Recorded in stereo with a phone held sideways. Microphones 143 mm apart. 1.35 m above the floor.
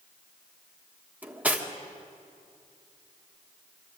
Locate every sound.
1.2 s cutlery clinking: 10° right (ahead or behind), 1.4 m